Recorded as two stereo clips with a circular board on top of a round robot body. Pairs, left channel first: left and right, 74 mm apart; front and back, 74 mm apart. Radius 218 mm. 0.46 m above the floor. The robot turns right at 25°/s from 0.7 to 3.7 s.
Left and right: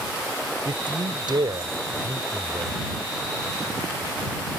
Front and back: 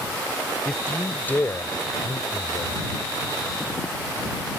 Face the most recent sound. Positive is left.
turn(degrees=-5)